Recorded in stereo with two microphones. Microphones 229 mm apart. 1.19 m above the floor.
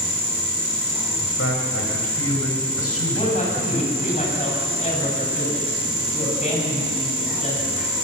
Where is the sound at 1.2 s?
85° left, 5 m; by 4.1 s 90° left, 6.5 m.